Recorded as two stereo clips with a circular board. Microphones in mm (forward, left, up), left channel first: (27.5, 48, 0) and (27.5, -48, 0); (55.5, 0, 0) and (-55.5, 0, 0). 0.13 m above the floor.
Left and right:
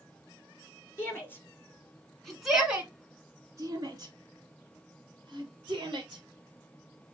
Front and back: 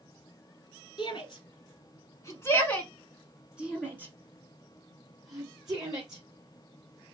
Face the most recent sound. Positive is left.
turn(degrees=-125)